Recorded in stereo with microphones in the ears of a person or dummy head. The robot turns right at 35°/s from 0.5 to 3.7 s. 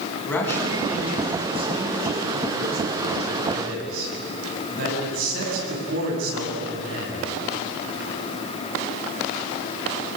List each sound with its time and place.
0.2 s a man speaking: 170° left, 8 m; by 7.3 s 80° right, 8 m